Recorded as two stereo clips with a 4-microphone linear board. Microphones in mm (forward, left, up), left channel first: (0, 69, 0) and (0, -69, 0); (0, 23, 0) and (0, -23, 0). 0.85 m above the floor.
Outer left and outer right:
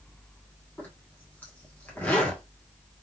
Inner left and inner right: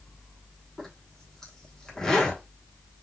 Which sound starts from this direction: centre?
A zipper, at 0.8 s.